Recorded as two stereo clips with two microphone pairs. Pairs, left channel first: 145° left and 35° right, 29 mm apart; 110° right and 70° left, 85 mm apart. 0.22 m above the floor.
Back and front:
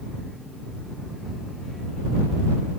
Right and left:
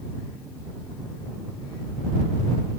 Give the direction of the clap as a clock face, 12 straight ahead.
No clap in this recording.